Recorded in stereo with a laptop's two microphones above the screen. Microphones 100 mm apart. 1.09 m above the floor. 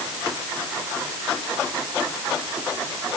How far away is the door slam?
I don't hear a door slam.